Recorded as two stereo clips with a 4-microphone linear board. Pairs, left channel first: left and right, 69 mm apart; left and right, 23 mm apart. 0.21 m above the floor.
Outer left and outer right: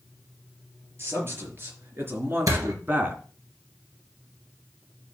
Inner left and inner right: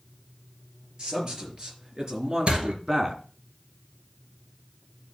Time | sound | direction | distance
1.0 | a man speaking | 35° right (ahead or behind) | 4.5 m
2.5 | a door slam | 55° right (ahead or behind) | 2.5 m